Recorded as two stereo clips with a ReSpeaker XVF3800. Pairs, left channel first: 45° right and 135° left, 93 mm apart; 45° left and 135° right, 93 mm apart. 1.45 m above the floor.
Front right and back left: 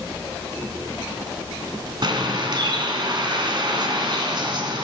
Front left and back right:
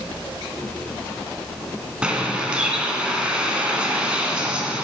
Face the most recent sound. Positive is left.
turn(degrees=150)